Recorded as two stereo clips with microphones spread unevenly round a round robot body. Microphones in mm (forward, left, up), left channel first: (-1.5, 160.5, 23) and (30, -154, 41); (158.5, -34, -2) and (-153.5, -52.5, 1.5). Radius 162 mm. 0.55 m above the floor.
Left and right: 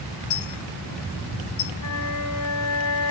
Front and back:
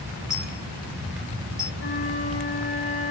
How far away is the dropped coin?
About 4.5 m.